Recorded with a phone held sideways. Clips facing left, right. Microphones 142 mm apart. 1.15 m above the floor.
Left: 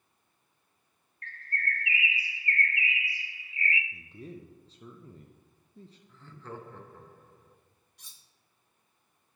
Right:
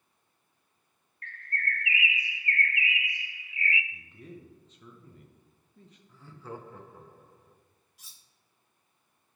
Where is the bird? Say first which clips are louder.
Even; 35° left (ahead or behind), 0.5 m.